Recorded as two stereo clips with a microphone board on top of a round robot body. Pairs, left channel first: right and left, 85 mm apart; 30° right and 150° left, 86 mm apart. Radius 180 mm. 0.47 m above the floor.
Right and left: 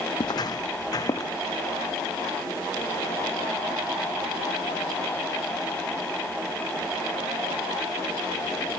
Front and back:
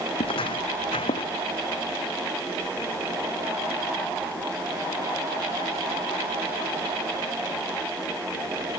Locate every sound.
0.2 s footsteps: 50° right; by 1.3 s 40° right